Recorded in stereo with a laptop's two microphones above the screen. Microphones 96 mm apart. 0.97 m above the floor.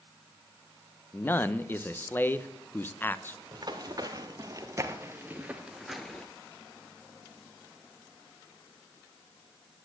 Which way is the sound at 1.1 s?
20° left (ahead or behind).